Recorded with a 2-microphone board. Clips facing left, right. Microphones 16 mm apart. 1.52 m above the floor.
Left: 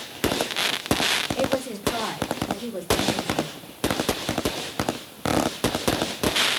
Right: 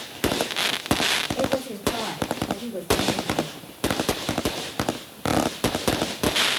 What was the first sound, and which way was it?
A woman speaking, 60° left (ahead or behind).